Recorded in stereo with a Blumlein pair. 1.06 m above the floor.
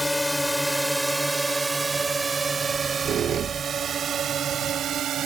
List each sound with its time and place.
0.0 s a drone: 5° left; by 5.3 s 30° right
2.7 s a squeak: 25° right